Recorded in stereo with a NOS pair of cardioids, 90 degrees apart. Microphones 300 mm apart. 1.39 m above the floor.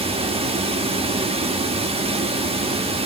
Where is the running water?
20° right, 1.6 m.